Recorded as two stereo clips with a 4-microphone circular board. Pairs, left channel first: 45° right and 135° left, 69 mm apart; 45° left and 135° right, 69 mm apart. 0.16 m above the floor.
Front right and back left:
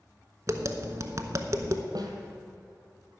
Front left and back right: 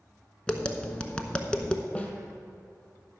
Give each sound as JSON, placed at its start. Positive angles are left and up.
{"t": 0.5, "sound": "tapping", "azimuth_deg": 115, "distance_m": 0.7}
{"t": 1.9, "sound": "a snare drum", "azimuth_deg": 120, "distance_m": 1.5}